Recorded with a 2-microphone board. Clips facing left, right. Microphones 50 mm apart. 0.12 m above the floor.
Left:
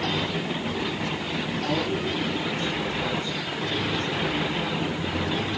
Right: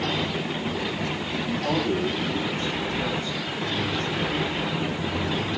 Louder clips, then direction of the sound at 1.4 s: Right 2 dB; 30° right (ahead or behind).